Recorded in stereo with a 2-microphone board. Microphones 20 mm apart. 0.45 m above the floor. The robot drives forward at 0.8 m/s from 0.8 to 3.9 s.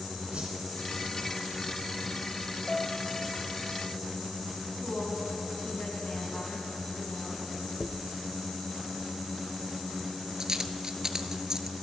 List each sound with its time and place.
0.3 s a whoosh: 75° right (ahead or behind), 3 m
2.7 s a piano: centre (ahead or behind), 1.8 m
4.8 s a woman speaking: 75° left (ahead or behind), 3.5 m
7.8 s a dropped coin: 35° right (ahead or behind), 0.8 m